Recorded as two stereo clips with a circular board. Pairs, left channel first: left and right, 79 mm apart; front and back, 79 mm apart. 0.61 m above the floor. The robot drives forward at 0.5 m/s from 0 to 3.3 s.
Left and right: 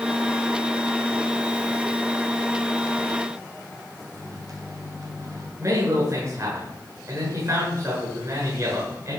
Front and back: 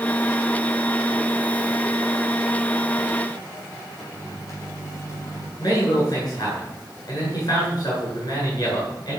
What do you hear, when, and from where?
4.1 s a microwave: 45° right, 3.5 m
5.6 s a man speaking: 40° right, 9.5 m